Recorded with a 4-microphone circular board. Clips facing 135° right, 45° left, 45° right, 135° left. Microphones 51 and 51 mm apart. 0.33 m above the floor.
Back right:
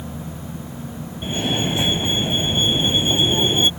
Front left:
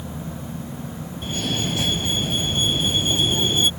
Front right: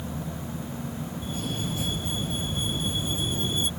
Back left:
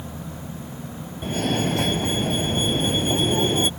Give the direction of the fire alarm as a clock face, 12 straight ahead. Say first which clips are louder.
Back right 4 dB, back left 11 dB; 7 o'clock.